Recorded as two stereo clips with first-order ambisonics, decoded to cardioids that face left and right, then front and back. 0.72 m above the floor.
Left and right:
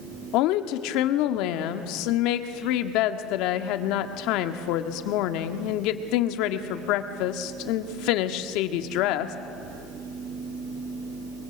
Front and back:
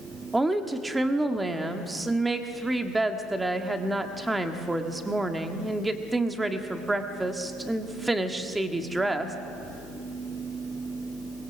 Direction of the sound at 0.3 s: 100° left.